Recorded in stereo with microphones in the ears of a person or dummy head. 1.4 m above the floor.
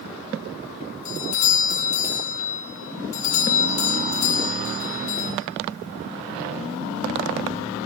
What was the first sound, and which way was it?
A doorbell, 40° left (ahead or behind).